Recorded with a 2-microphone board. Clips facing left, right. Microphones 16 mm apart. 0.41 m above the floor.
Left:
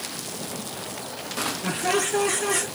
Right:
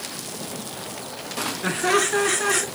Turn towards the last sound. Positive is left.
turn(degrees=-50)  # may be behind; listen again after turning